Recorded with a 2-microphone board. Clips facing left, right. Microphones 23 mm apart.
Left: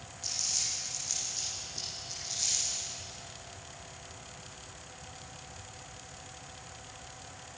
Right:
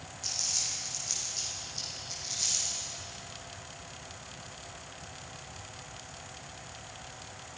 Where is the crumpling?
10° right (ahead or behind), 9 m.